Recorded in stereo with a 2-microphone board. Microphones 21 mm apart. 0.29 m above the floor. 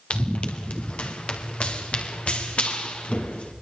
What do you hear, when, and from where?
0.1 s running footsteps: 70° left (ahead or behind), 3 m; by 3.5 s 65° left (ahead or behind), 5.5 m